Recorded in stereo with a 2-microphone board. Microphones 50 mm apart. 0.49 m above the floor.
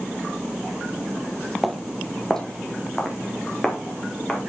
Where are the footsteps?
Centre (ahead or behind), 0.8 m; by 4.4 s 20° left (ahead or behind), 3 m.